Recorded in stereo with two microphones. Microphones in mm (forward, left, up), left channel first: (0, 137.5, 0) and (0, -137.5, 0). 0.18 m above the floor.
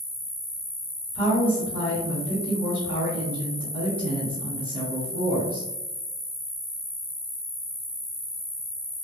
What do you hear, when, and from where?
0.0 s an insect: 10° left (ahead or behind), 1.0 m
1.1 s a woman speaking: 20° left (ahead or behind), 1.8 m